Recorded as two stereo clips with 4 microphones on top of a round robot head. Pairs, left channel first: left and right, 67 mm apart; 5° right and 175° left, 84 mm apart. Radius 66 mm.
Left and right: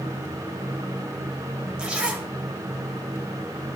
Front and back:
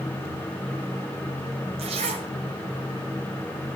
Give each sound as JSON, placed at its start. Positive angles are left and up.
{"t": 1.8, "sound": "a zipper", "azimuth_deg": -165, "distance_m": 2.5}